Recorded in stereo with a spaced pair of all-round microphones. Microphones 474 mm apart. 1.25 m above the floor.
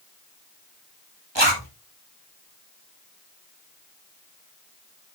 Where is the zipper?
60° right (ahead or behind), 2 m.